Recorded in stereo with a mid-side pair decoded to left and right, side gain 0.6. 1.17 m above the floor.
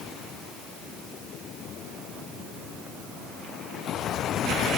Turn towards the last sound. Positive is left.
No sound to turn to.